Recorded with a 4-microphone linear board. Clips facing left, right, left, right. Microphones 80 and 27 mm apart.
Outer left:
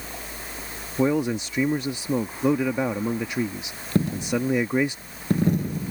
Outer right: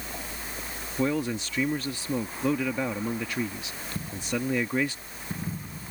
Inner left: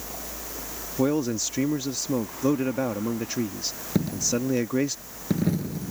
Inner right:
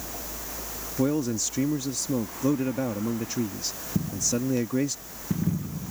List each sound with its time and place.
1.0 s a man speaking: 20° left (ahead or behind)
4.0 s a dropped coin: 75° left (ahead or behind)